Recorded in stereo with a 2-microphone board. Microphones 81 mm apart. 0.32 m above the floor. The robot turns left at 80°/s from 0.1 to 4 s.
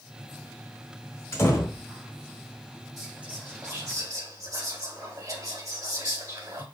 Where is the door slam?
125° left, 1.1 m; by 1.8 s 80° left, 1.1 m.